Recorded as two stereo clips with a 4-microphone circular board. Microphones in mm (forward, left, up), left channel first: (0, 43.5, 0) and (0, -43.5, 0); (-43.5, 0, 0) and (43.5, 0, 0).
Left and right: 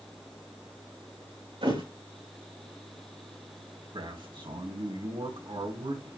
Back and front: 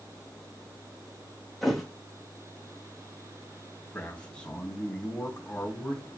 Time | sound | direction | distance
1.6 | a thud | 90° right | 7 m
3.9 | a man speaking | 105° right | 3.5 m